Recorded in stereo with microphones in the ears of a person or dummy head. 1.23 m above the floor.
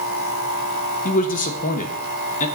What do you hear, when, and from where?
1.1 s a man speaking: 40° left (ahead or behind), 1.0 m